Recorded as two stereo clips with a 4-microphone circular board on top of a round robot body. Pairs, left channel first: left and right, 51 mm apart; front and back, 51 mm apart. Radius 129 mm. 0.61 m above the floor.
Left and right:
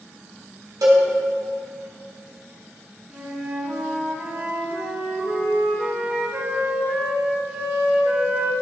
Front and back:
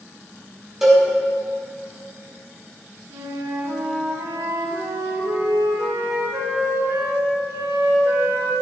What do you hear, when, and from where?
0.8 s a cowbell: 95° right, 1.3 m
3.1 s a flute: 160° right, 1.3 m